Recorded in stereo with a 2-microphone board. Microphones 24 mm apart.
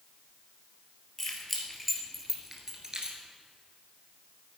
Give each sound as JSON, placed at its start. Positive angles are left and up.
{"t": 1.2, "sound": "keys jangling", "side_deg": 10, "distance_m": 2.5}